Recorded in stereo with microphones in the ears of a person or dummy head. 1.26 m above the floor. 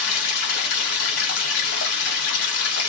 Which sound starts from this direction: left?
Running water, at 0.0 s.